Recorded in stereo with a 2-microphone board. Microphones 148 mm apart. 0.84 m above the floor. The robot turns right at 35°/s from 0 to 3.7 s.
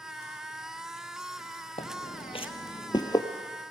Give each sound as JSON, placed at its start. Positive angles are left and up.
{"t": 1.8, "sound": "footsteps", "side_deg": 45, "distance_m": 1.8}